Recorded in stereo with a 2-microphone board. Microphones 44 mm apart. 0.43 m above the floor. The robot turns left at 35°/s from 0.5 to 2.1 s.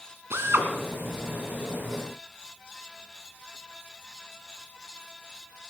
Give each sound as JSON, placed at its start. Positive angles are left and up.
{"t": 0.3, "sound": "a drill", "side_deg": -70, "distance_m": 2.5}